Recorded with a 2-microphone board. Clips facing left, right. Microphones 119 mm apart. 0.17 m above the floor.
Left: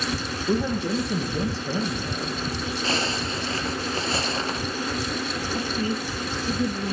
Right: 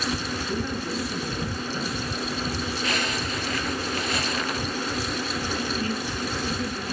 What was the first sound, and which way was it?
A man speaking, 80° left.